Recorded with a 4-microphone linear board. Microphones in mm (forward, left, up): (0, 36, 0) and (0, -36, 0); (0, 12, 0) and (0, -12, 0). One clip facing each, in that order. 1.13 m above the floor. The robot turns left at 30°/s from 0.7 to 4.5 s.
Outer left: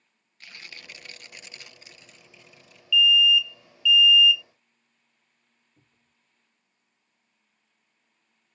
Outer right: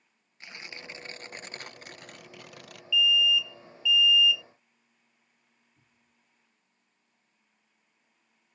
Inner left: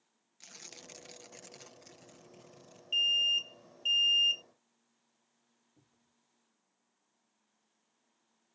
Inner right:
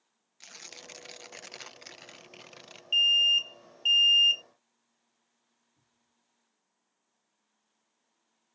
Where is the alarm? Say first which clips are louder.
Outer left 5 dB, inner right 6 dB; 25° right (ahead or behind).